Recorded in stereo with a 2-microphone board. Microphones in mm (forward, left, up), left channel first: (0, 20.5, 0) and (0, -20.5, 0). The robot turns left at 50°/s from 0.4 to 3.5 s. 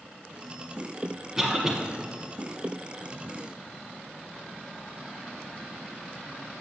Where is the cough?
10° right (ahead or behind), 1.0 m; by 1.8 s 15° right (ahead or behind), 1.0 m.